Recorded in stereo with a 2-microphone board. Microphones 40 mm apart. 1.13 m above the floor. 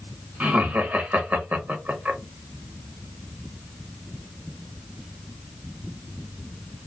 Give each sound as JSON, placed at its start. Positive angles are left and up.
{"t": 0.4, "sound": "laughter", "side_deg": -40, "distance_m": 1.1}